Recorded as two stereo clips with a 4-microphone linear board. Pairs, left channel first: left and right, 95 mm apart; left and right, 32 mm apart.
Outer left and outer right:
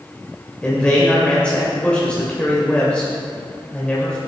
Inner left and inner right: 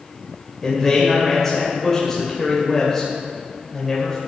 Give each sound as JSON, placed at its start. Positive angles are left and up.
{"t": 0.6, "sound": "a man speaking", "side_deg": 10, "distance_m": 2.5}